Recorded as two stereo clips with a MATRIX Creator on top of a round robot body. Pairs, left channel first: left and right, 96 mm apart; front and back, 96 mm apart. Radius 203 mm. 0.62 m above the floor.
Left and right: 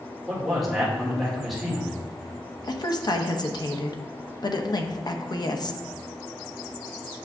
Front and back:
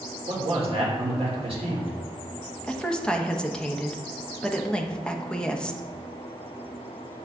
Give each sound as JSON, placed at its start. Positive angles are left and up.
{"t": 0.3, "sound": "a man speaking", "azimuth_deg": 180, "distance_m": 2.0}
{"t": 2.6, "sound": "a woman speaking", "azimuth_deg": 75, "distance_m": 1.1}